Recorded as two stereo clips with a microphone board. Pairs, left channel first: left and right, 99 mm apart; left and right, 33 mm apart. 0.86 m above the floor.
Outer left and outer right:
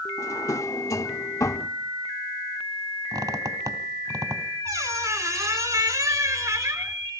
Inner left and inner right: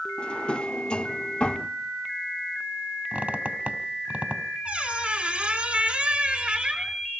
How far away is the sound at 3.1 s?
About 1.1 m.